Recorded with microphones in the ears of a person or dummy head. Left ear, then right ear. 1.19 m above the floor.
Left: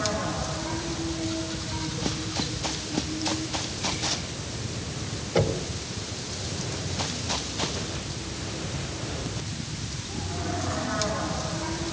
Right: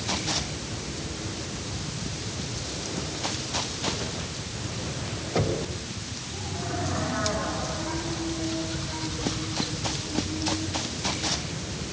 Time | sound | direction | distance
5.3 | knocking | 5° left (ahead or behind) | 3.5 m